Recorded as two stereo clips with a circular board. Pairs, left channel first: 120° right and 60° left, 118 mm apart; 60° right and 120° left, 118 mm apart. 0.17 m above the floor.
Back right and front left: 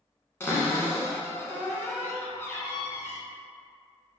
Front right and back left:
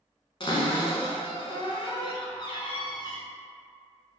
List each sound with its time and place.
0.4 s a cupboard door: 60° right, 0.6 m